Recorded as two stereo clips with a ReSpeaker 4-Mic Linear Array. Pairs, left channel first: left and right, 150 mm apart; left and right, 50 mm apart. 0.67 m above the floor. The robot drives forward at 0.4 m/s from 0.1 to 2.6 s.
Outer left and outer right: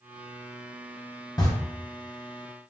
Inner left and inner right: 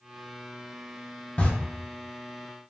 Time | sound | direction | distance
1.4 | a camera shutter | 25° left (ahead or behind) | 1.3 m